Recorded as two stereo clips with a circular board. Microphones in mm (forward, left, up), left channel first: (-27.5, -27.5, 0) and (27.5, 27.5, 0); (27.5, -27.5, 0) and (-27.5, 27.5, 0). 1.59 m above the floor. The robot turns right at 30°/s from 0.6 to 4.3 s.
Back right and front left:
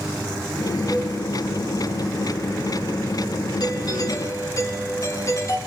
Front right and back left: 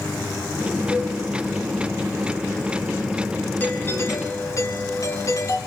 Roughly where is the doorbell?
Right.